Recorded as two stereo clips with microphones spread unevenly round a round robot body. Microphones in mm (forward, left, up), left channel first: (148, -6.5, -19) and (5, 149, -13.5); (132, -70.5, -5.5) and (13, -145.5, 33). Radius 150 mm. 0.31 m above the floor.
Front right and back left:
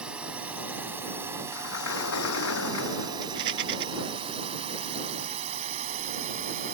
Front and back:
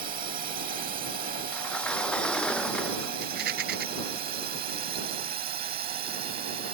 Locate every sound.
0.0 s a drone: 140° right; by 6.7 s 170° right
1.5 s a sliding door: 50° right
3.2 s a rattle: 175° right